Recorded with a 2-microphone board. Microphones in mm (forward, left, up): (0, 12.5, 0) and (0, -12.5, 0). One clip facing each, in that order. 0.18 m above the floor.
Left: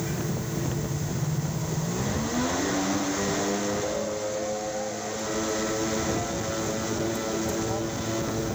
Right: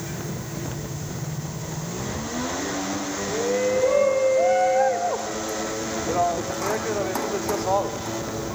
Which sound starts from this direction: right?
A shout, at 3.3 s.